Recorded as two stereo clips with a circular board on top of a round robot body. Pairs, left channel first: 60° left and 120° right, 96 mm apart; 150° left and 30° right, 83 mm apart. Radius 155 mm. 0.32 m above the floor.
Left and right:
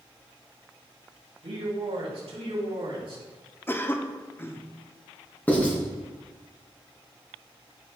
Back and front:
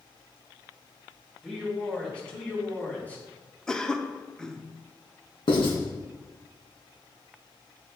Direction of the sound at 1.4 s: 125° right.